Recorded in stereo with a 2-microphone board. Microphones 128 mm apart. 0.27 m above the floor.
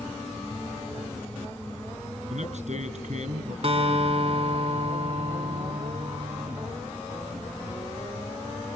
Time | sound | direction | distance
2.3 | a man speaking | 70° right (ahead or behind) | 3.5 m
3.6 | a guitar | 55° right (ahead or behind) | 1.9 m